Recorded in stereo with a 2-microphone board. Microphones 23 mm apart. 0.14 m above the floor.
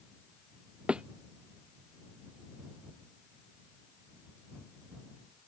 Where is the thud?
55° right (ahead or behind).